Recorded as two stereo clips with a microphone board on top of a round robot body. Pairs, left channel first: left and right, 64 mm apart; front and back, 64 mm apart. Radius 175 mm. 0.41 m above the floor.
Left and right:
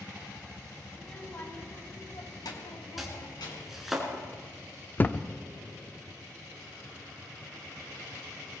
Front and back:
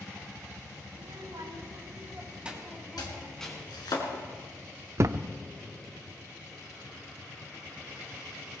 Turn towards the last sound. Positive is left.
turn(degrees=150)